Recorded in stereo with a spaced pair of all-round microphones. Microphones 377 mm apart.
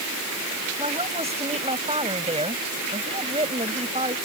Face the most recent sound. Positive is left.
turn(degrees=-15)  # may be behind; listen again after turning